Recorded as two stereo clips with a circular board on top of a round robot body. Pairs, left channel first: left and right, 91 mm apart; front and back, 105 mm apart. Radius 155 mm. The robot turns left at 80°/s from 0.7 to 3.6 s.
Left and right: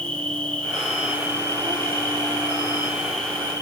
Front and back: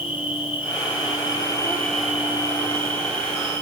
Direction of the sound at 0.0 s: 15° left.